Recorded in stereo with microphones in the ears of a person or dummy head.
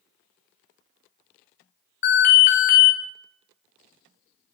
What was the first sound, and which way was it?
An alarm, 45° left (ahead or behind).